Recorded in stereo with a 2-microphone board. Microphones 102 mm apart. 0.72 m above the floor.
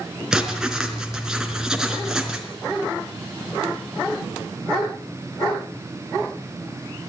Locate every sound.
0.3 s writing: 5° right (ahead or behind), 3.5 m